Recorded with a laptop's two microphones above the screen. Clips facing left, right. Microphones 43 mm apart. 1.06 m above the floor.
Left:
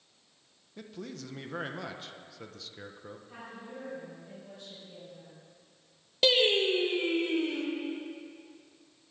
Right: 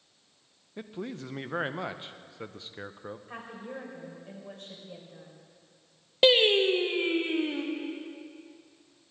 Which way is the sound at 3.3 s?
55° right (ahead or behind).